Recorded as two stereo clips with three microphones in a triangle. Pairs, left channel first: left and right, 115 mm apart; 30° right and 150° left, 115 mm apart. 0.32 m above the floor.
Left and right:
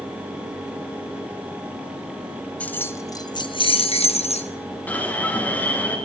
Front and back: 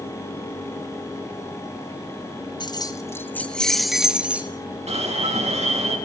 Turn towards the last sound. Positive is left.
turn(degrees=165)